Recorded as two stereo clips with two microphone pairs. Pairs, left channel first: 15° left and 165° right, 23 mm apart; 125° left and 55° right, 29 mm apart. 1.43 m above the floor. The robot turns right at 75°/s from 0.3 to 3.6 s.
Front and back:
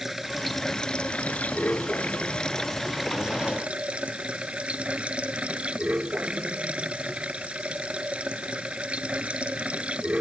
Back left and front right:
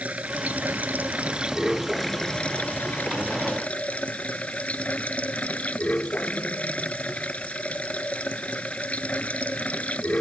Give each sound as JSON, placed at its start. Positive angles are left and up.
{"t": 0.0, "sound": "running water", "azimuth_deg": -90}